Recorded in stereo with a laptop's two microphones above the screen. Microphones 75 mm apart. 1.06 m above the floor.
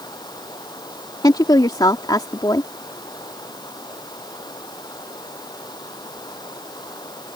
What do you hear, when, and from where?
0.0 s running water: 70° left (ahead or behind)
1.2 s a woman speaking: 70° left (ahead or behind)